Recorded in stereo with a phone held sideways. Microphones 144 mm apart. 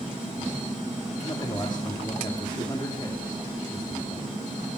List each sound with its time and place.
1.2 s a man speaking: 30° left (ahead or behind), 2.5 m